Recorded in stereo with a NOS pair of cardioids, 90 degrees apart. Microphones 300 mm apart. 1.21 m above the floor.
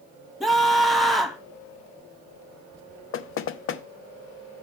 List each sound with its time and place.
0.4 s a scream: straight ahead, 1.6 m
3.1 s knocking: 45° left, 0.7 m